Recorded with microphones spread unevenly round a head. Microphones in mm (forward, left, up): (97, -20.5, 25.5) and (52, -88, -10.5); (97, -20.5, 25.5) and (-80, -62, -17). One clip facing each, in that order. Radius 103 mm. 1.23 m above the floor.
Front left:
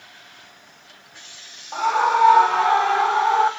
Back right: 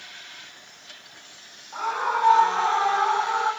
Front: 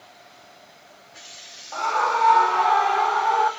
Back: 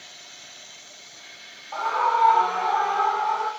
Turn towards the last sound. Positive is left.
turn(degrees=40)